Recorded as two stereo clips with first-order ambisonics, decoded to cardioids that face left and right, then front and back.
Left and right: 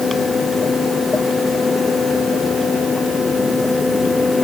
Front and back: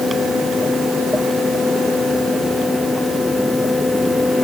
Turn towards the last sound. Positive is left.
No sound to turn to.